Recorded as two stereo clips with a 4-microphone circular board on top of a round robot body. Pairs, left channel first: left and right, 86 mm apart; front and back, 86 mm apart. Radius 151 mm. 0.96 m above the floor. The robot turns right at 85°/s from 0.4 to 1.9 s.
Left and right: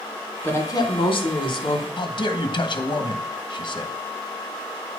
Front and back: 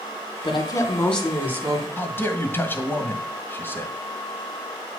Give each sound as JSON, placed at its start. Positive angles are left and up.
{"t": 0.4, "sound": "a woman speaking", "azimuth_deg": 20, "distance_m": 2.0}
{"t": 2.0, "sound": "a man speaking", "azimuth_deg": 65, "distance_m": 1.7}